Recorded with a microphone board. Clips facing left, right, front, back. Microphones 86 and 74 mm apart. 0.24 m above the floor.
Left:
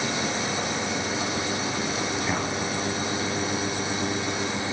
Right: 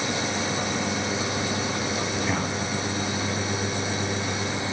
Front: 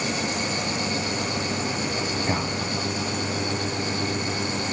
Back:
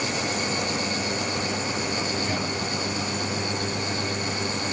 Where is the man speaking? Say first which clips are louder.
Even, front 2 dB; 10° left, 1.6 m.